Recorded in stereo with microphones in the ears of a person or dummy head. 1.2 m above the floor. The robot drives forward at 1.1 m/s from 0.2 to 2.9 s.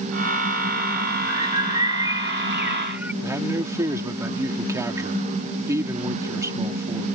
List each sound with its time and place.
1.3 s a bird: 15° right (ahead or behind); by 3.1 s 5° right (ahead or behind)
3.2 s a man speaking: 10° right (ahead or behind)